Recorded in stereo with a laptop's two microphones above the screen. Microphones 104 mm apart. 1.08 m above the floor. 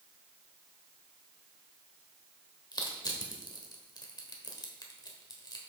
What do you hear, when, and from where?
2.7 s crushing: 40° left (ahead or behind), 1.2 m